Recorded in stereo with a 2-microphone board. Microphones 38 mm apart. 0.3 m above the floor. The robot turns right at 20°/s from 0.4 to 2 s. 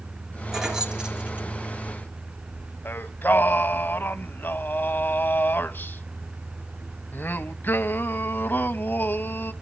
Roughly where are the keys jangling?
Centre.